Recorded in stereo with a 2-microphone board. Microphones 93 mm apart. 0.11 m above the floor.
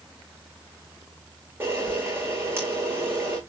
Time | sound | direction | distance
1.6 | a camera shutter | 25° right (ahead or behind) | 4 m